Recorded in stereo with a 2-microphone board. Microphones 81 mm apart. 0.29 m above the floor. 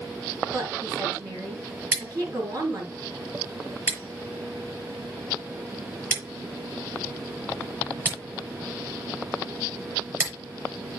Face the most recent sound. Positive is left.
turn(degrees=-30)  # may be behind; listen again after turning